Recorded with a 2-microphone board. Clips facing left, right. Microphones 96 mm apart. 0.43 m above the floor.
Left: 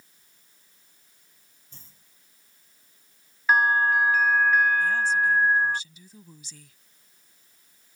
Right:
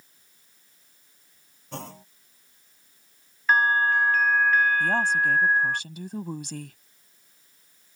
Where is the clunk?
75° right (ahead or behind).